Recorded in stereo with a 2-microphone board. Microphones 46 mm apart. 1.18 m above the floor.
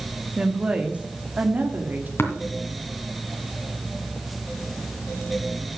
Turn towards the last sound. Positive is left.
turn(degrees=65)  # may be behind; listen again after turning